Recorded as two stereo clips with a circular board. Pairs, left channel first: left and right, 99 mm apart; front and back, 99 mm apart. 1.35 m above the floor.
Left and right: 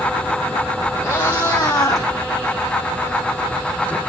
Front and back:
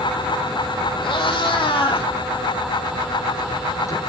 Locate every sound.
1.0 s a cat meowing: 35° left, 3.5 m; by 4.0 s 25° left, 1.5 m